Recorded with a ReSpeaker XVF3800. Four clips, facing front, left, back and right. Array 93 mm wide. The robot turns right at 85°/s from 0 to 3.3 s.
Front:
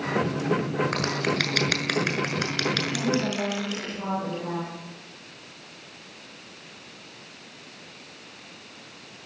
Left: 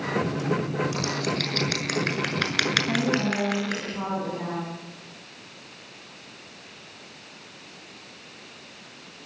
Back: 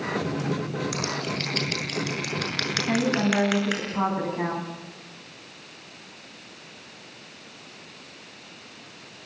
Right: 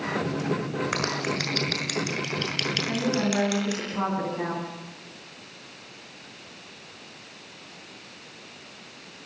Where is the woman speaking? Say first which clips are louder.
Left 1 dB, back 3 dB; 160° left, 6.5 m; by 4.7 s 160° right, 6.5 m.